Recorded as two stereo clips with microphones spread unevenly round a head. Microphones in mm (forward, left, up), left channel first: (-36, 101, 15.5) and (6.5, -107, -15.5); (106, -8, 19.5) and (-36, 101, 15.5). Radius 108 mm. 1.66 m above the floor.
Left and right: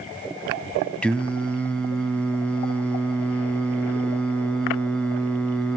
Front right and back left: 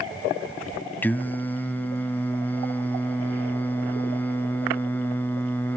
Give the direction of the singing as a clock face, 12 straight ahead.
11 o'clock.